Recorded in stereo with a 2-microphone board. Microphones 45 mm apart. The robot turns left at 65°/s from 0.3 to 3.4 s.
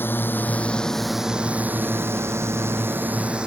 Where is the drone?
55° left (ahead or behind); by 3.5 s 25° right (ahead or behind).